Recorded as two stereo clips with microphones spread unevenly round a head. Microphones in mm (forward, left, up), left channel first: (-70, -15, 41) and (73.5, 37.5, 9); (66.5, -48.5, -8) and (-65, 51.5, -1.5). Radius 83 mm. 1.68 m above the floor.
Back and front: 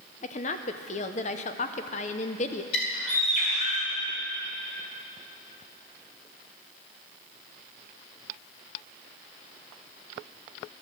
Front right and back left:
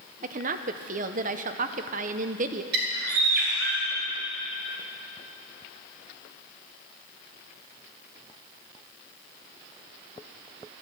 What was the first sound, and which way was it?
A woman speaking, 175° left.